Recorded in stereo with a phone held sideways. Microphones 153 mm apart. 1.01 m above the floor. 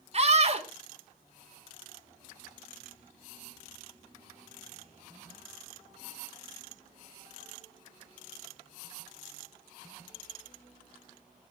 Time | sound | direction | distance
0.1 | a scream | 40° right (ahead or behind) | 1.8 m